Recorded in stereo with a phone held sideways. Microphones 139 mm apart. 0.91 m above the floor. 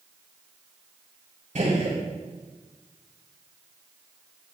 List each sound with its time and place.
1.6 s a gunshot: 65° right (ahead or behind), 3 m